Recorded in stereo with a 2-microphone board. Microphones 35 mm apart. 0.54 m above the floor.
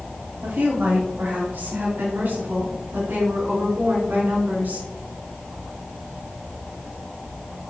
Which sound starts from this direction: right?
A woman speaking, at 0.4 s.